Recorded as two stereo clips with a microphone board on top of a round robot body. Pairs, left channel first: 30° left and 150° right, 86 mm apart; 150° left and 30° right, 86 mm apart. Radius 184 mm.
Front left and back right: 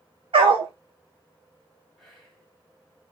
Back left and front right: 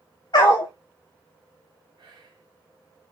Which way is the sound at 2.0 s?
60° right.